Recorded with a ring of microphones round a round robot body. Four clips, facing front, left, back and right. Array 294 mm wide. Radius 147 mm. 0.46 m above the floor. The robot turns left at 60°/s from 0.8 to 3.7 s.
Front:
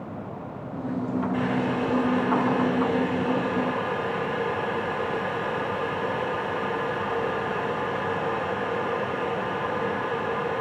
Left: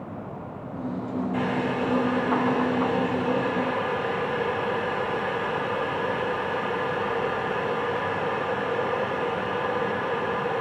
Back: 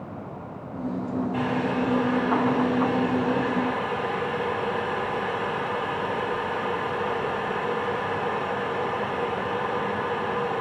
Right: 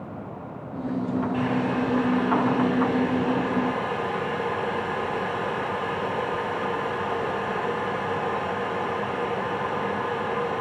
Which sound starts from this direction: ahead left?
Boiling, at 1.3 s.